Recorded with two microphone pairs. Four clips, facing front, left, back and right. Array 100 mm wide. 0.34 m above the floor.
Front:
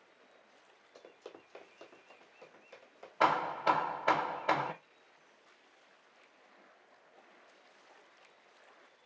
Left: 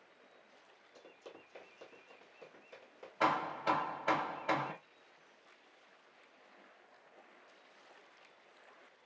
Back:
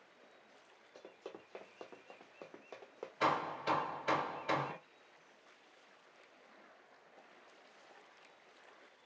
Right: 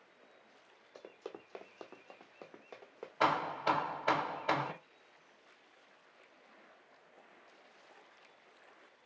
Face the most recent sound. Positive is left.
turn(degrees=-25)